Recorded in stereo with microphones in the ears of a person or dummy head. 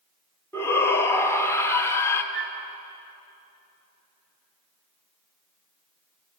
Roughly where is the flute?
Right.